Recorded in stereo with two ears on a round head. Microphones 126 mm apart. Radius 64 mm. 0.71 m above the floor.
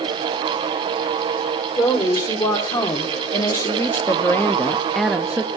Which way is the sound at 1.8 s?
30° left (ahead or behind).